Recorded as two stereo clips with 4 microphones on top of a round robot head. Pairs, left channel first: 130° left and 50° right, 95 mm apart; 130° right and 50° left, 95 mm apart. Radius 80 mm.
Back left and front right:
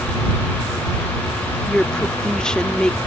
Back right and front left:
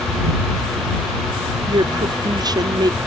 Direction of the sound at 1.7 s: 50° left.